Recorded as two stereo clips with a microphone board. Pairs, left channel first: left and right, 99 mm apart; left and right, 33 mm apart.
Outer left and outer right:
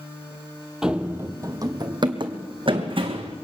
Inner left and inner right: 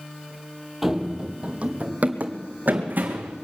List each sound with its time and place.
0.8 s running footsteps: 5° right (ahead or behind), 0.9 m; by 3.4 s 65° right (ahead or behind), 2.5 m